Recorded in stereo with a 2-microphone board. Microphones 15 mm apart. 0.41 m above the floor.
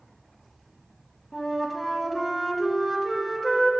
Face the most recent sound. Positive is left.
turn(degrees=10)  # may be behind; listen again after turning